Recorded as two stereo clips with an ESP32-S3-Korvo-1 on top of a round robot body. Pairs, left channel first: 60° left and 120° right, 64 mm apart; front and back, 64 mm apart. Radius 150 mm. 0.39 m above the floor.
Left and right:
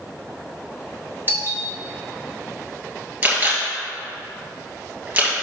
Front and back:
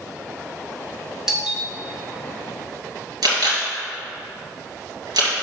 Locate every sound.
1.3 s a doorbell: 100° right, 1.8 m
3.2 s a camera shutter: straight behind, 2.5 m